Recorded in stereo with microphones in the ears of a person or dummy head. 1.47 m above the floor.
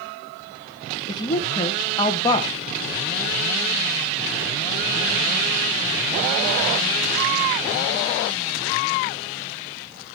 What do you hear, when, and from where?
1.1 s a woman speaking: 25° left (ahead or behind), 1.0 m